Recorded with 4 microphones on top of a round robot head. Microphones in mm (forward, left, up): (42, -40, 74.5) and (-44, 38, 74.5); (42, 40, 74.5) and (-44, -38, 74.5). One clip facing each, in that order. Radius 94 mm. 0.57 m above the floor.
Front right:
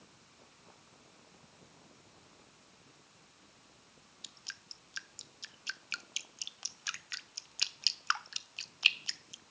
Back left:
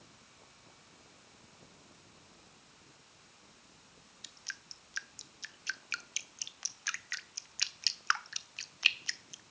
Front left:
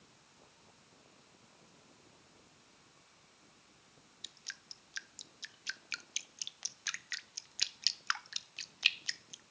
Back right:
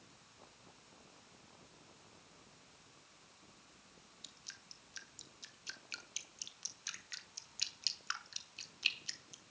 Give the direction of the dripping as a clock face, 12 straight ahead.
11 o'clock.